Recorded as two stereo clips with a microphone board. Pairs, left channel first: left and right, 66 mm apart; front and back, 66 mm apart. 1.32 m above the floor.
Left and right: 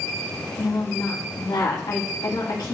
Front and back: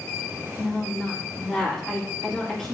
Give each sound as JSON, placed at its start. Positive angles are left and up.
{"t": 0.6, "sound": "a woman speaking", "azimuth_deg": 80, "distance_m": 3.0}